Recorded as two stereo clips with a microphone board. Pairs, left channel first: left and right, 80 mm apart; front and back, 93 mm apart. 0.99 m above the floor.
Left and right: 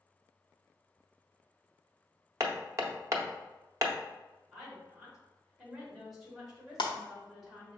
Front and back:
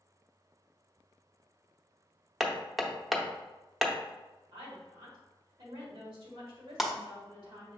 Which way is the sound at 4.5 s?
175° right.